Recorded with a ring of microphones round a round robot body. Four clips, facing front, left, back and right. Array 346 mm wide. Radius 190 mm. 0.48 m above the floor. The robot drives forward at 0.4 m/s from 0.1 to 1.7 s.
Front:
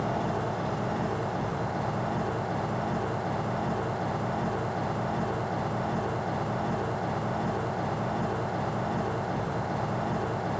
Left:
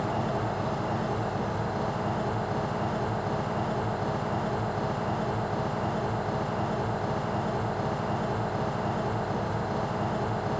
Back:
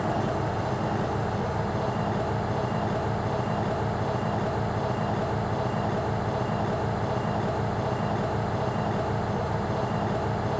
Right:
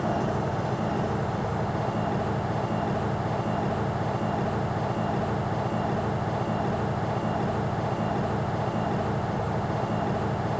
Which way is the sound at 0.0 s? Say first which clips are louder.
Right 2 dB, back 2 dB; 105° right.